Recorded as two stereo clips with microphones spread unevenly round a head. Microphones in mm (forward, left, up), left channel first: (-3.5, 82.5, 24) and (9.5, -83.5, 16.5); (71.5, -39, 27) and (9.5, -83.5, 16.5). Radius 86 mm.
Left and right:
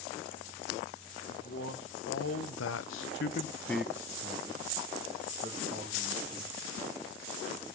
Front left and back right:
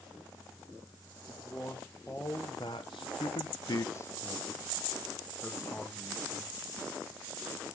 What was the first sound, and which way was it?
A man speaking, 115° left.